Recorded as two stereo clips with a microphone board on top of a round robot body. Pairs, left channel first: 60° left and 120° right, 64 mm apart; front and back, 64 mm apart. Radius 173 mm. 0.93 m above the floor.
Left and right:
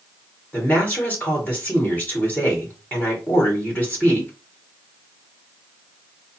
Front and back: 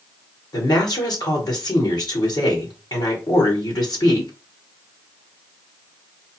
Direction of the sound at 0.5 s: 5° right.